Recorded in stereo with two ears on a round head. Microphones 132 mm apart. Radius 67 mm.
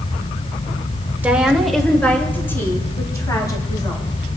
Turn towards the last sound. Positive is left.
turn(degrees=30)  # may be behind; listen again after turning